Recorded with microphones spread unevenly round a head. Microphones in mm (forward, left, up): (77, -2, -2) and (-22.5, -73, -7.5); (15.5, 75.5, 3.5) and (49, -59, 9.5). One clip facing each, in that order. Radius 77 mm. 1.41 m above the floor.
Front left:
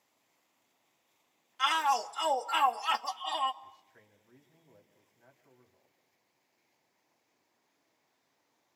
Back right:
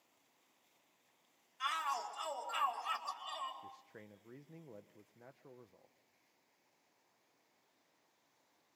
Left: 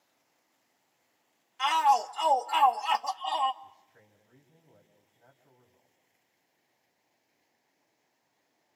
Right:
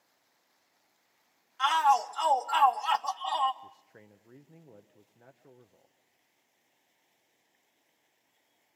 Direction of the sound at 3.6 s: 115° right.